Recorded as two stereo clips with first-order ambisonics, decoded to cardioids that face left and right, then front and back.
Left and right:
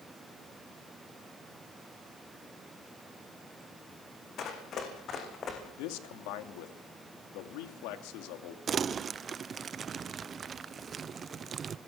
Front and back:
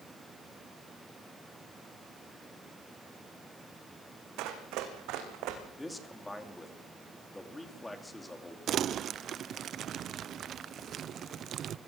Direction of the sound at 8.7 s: 145° right.